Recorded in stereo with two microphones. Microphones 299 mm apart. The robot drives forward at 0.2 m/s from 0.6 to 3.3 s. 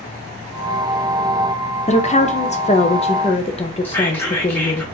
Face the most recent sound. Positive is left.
turn(degrees=5)  # may be behind; listen again after turning